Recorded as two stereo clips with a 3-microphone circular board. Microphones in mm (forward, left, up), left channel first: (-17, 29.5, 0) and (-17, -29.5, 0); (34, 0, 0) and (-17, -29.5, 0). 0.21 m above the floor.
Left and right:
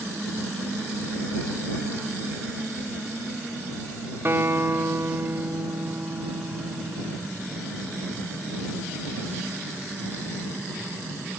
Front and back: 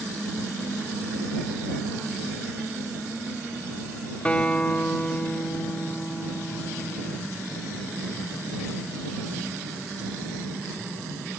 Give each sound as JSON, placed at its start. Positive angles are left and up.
{"t": 4.2, "sound": "a guitar", "azimuth_deg": -40}